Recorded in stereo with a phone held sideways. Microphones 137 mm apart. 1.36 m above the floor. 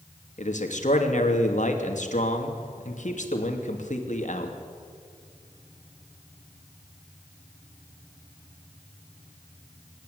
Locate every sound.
0.4 s a man speaking: 60° left (ahead or behind), 3 m